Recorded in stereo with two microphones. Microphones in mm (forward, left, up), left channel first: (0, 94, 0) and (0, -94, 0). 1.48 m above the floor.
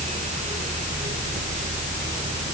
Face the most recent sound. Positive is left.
No sound to turn to.